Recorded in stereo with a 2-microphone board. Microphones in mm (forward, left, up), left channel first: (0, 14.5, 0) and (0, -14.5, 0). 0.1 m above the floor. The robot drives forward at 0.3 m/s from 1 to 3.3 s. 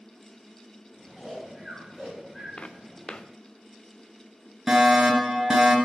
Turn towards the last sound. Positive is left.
turn(degrees=-25)  # may be behind; listen again after turning